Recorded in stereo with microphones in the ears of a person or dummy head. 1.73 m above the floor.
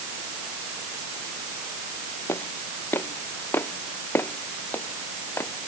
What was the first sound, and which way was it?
Footsteps, 15° left (ahead or behind).